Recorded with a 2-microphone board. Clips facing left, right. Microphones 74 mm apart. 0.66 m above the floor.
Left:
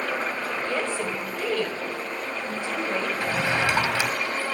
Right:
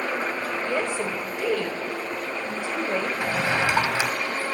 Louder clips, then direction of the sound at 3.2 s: Even; 20° right (ahead or behind).